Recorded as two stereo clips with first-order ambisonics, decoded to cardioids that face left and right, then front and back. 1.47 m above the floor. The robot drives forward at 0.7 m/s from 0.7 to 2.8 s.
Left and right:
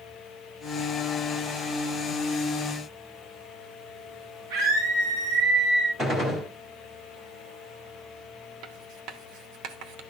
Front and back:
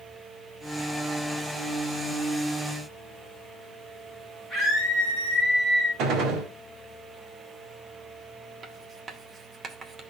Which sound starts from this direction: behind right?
Writing, at 8.6 s.